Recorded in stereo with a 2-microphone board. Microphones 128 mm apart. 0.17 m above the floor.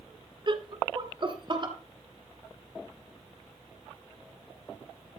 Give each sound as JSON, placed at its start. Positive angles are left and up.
{"t": 0.5, "sound": "laughter", "side_deg": -40, "distance_m": 1.4}